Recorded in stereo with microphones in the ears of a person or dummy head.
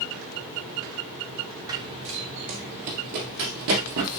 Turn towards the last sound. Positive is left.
turn(degrees=-60)  # may be behind; listen again after turning